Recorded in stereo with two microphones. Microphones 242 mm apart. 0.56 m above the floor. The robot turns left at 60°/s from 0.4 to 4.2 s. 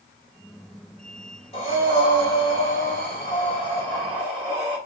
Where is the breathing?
150° left, 2.5 m; by 4.8 s 10° right, 2.5 m.